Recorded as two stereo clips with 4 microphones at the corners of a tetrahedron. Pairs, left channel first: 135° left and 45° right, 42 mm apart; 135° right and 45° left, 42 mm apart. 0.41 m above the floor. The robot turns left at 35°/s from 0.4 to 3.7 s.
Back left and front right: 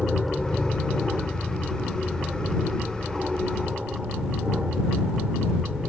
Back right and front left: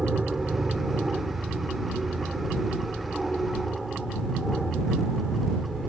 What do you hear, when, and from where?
0.0 s an aircraft: 60° left; by 5.9 s 55° right